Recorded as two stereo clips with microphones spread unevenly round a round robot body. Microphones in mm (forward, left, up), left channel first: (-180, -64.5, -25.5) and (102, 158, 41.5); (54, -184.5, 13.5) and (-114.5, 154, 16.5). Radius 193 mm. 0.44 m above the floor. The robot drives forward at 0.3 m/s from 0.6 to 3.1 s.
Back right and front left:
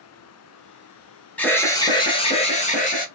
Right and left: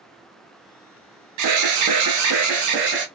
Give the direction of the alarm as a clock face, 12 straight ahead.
7 o'clock.